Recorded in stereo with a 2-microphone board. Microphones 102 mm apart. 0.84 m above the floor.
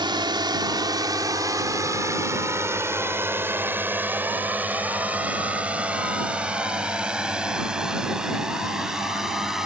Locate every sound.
0.0 s a drone: 50° right (ahead or behind); by 9.7 s 5° right (ahead or behind)